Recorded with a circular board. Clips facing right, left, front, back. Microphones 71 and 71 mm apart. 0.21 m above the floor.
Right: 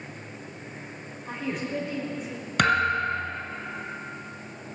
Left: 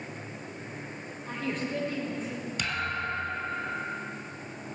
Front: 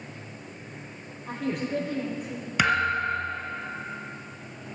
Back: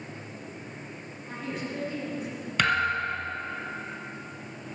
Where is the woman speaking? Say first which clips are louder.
Right 1 dB, front 6 dB; 5° right, 7 m.